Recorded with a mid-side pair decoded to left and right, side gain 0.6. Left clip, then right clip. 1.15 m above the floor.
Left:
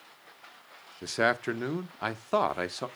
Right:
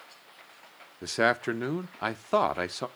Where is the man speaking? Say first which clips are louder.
Right 1 dB; 5° right, 0.8 m.